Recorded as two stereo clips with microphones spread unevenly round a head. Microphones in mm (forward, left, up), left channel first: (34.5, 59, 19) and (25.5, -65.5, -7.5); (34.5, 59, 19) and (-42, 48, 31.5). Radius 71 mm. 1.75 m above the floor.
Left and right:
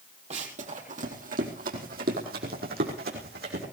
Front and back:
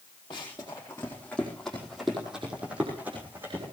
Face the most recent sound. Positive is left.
turn(degrees=-100)